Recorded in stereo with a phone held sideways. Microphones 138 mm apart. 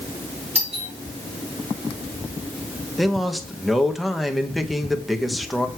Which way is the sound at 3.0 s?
Centre (ahead or behind).